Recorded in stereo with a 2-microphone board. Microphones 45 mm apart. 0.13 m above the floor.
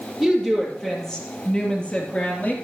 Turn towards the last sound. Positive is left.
turn(degrees=35)  # may be behind; listen again after turning